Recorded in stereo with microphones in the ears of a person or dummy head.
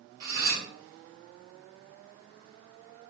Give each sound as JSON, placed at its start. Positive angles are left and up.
{"t": 0.2, "sound": "cutlery clinking", "side_deg": -55, "distance_m": 1.0}